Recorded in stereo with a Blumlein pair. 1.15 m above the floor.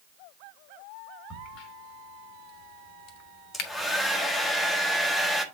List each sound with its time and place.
1.3 s a crack: 40° left, 1.0 m
3.5 s a hair dryer: 5° left, 1.0 m